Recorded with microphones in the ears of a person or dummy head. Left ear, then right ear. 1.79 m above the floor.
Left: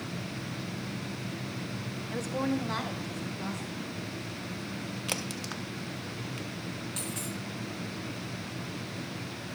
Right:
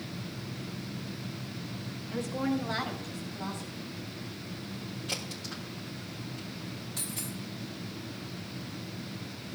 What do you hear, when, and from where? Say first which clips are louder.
2.1 s a woman speaking: even; 25° left (ahead or behind), 0.5 m; by 3.9 s 5° left (ahead or behind), 3 m
5.1 s a crack: left 1 dB; 30° left (ahead or behind), 0.7 m
7.0 s a dropped coin: even; 30° left (ahead or behind), 1.6 m